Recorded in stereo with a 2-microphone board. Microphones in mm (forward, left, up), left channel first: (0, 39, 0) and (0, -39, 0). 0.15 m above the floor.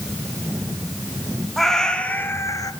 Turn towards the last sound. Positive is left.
turn(degrees=55)  # may be behind; listen again after turning